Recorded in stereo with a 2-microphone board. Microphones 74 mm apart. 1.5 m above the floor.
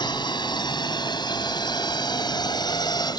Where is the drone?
85° left; by 3.2 s 70° left (ahead or behind).